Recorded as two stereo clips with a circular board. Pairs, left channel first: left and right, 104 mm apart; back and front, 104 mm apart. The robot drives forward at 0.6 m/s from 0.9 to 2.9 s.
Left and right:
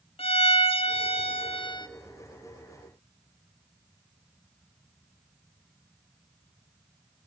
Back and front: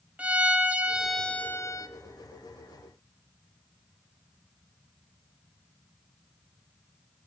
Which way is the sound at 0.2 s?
75° left.